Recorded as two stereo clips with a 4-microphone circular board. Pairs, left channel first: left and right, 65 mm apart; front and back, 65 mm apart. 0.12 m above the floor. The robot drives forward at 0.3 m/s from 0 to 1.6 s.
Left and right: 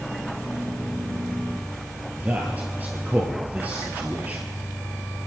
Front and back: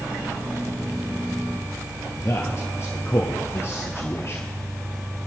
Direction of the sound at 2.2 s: 30° right.